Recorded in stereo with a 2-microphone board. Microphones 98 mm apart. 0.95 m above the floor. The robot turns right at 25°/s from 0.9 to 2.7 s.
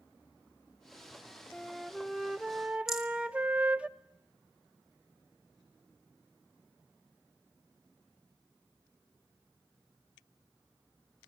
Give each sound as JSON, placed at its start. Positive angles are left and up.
{"t": 1.5, "sound": "a flute", "side_deg": 15, "distance_m": 0.6}
{"t": 2.9, "sound": "a rattle", "side_deg": -5, "distance_m": 1.6}